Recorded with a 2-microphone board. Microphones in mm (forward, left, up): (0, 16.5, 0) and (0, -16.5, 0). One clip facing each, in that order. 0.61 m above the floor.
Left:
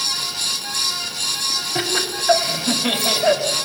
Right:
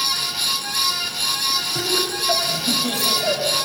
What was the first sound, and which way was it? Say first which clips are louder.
Laughter: even; 35° left (ahead or behind).